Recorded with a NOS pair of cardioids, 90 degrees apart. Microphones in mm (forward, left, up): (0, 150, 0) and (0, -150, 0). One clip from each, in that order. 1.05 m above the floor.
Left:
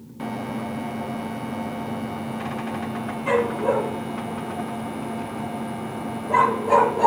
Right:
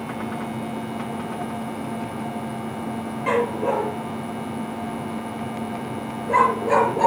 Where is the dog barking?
40° right, 6.5 m; by 7.1 s 25° right, 5 m.